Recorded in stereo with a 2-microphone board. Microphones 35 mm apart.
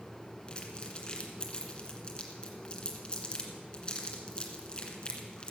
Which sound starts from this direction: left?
Crumpling, at 0.5 s.